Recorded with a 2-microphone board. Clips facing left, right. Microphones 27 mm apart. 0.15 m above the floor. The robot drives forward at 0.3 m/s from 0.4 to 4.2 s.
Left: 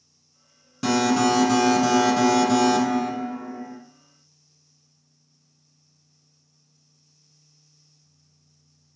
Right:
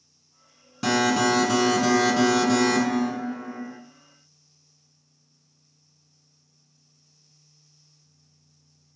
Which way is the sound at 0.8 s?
5° right (ahead or behind).